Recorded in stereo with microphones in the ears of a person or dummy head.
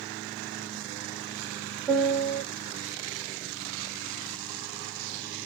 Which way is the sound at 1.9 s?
5° right (ahead or behind).